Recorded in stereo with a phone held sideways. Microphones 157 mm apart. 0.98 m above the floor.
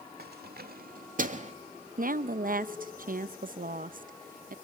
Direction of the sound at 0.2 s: 85° right.